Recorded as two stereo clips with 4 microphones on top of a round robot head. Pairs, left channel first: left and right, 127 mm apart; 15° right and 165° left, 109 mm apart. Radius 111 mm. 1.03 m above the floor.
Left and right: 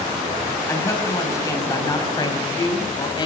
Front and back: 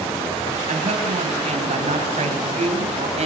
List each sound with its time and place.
0.7 s a woman speaking: 155° left, 7 m; by 3.3 s 145° left, 6 m